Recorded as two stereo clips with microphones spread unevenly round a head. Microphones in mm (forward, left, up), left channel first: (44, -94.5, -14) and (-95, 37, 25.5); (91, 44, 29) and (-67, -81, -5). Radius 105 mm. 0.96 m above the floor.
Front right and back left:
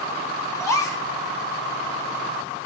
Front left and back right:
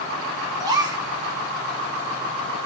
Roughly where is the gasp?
Right.